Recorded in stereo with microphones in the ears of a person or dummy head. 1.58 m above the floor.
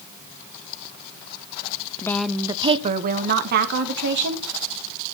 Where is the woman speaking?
15° left (ahead or behind), 0.6 m; by 4.5 s 65° right (ahead or behind), 2 m.